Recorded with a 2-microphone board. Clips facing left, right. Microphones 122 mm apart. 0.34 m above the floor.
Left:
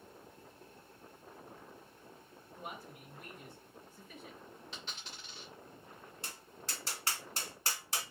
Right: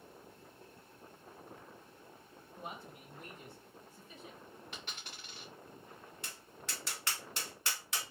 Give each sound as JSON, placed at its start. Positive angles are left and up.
{"t": 2.6, "sound": "a man speaking", "side_deg": -25, "distance_m": 1.3}
{"t": 4.7, "sound": "a dropped coin", "side_deg": -60, "distance_m": 2.5}
{"t": 6.2, "sound": "tapping", "side_deg": 35, "distance_m": 1.4}